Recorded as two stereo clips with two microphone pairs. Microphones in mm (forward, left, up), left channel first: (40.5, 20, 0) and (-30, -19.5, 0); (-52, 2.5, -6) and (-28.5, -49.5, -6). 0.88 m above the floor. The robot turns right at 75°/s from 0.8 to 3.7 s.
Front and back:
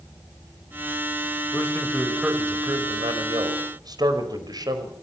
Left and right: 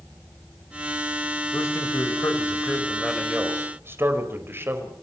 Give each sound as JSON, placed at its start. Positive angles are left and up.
{"t": 1.5, "sound": "a man speaking", "azimuth_deg": 80, "distance_m": 4.5}